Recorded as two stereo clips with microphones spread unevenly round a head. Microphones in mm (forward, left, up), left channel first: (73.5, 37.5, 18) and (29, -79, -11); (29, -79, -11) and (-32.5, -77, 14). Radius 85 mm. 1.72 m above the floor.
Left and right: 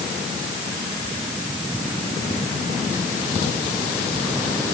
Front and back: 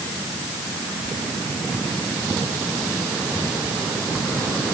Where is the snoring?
I don't hear snoring.